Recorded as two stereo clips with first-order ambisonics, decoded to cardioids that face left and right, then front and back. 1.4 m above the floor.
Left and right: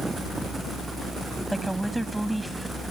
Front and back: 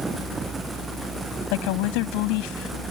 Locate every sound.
1.5 s a woman speaking: straight ahead; by 2.9 s 5° right